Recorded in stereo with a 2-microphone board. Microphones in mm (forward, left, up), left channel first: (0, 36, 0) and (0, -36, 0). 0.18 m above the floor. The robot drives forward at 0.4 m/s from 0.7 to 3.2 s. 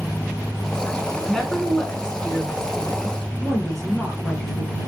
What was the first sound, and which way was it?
A woman speaking, 10° left (ahead or behind).